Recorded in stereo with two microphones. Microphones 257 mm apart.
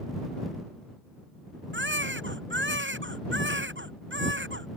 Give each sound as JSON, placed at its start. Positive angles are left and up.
{"t": 1.7, "sound": "a baby crying", "side_deg": -45}